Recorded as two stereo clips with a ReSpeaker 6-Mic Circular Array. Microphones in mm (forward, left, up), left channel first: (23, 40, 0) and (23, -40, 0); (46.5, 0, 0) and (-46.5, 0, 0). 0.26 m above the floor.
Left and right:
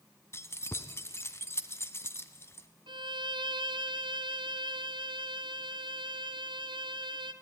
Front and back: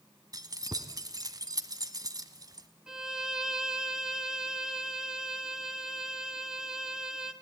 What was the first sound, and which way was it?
Keys jangling, 140° left.